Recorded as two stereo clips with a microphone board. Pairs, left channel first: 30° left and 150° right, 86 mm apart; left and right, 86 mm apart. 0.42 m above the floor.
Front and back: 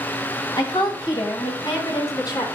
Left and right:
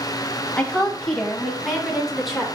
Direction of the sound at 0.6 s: 15° left.